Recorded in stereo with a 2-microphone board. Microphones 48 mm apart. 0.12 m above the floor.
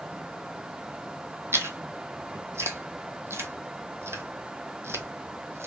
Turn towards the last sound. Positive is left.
turn(degrees=-65)  # may be behind; listen again after turning